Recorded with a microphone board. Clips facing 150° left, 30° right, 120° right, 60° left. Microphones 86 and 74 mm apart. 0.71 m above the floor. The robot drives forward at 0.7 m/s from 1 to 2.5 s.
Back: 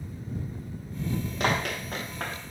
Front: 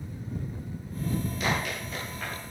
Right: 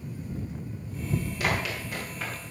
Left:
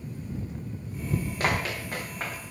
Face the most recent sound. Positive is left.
turn(degrees=115)